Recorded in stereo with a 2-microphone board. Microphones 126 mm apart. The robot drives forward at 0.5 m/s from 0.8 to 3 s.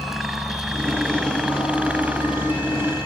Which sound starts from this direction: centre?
A helicopter, at 0.0 s.